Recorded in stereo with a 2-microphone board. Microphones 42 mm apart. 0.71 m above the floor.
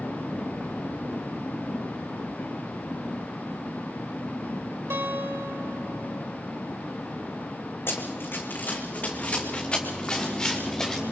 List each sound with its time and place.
4.9 s a guitar: 70° right (ahead or behind), 3.5 m
7.9 s running footsteps: 65° left (ahead or behind), 2.5 m; by 11.0 s 10° left (ahead or behind), 4.5 m